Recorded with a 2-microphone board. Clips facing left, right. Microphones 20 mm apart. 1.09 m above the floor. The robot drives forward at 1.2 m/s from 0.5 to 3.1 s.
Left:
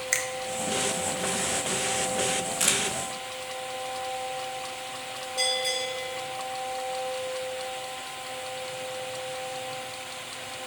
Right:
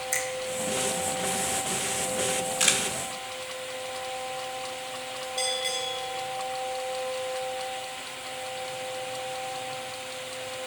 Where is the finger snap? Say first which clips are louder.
Left 3 dB; 35° left (ahead or behind), 0.8 m.